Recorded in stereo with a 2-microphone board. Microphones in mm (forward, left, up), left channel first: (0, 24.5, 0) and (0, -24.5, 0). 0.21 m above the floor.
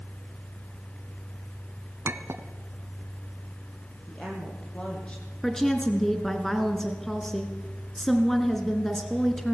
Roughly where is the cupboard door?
No cupboard door in this recording.